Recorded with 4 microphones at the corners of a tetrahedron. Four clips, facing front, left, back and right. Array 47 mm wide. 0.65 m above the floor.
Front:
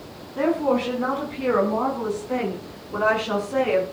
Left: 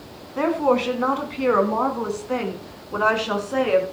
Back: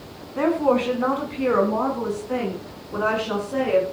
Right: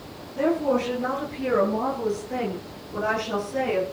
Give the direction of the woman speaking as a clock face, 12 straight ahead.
8 o'clock.